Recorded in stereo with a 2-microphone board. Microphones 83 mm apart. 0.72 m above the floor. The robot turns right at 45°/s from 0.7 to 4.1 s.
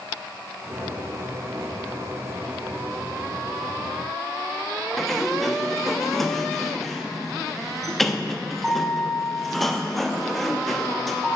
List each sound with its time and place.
5.0 s a sliding door: 5° left (ahead or behind), 0.5 m